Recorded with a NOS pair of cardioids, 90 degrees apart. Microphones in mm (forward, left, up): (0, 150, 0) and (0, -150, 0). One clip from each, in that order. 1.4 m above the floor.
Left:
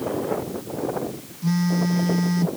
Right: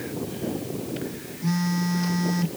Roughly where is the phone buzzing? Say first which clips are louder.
Left 3 dB; ahead.